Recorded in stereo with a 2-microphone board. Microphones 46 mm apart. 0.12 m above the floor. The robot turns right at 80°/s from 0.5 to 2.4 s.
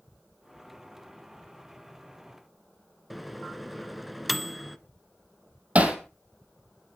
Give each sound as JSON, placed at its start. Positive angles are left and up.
{"t": 3.1, "sound": "a microwave", "side_deg": 0, "distance_m": 1.1}
{"t": 5.8, "sound": "hammering", "side_deg": -30, "distance_m": 2.5}